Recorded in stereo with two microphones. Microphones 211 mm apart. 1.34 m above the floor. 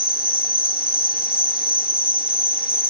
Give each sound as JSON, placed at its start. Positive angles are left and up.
{"t": 0.0, "sound": "an insect", "side_deg": 45}